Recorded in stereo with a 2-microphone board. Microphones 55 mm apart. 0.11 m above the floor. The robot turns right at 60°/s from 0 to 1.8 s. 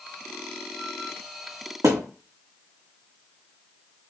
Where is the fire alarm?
I don't hear a fire alarm.